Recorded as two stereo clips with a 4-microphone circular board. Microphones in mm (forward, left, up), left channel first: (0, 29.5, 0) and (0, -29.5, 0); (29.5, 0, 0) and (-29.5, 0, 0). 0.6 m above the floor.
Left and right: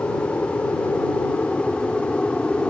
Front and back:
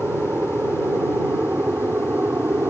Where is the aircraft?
135° left; by 2.7 s 155° left.